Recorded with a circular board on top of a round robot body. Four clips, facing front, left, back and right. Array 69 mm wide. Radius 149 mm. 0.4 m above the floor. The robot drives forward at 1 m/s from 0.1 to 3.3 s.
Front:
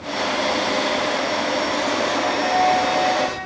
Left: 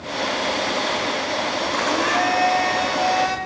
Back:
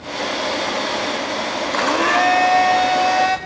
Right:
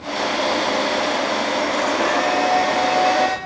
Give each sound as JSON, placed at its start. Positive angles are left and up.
{"t": 1.7, "sound": "a blender", "azimuth_deg": 175, "distance_m": 1.8}